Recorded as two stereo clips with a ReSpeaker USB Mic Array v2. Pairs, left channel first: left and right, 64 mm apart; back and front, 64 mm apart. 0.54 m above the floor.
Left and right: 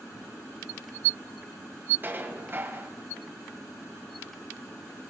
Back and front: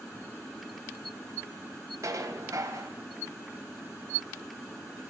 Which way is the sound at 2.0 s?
30° right.